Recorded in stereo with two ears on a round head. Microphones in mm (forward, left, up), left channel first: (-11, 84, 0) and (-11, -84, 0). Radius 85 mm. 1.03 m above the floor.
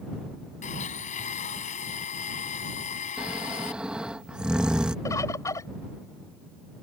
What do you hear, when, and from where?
0.6 s a blender: 45° left (ahead or behind)
3.2 s snoring: 5° right (ahead or behind)
5.0 s a bird: 15° left (ahead or behind)